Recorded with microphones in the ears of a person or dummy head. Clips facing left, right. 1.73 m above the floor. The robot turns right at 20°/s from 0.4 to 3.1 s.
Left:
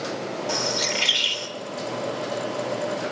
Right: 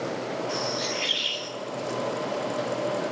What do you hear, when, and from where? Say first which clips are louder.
0.5 s a bird: left 2 dB; 75° left (ahead or behind), 1.8 m; by 1.5 s 60° left (ahead or behind), 1.8 m